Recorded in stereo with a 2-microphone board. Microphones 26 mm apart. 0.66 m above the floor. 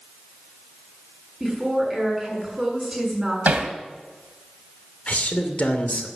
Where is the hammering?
70° right (ahead or behind), 2 m.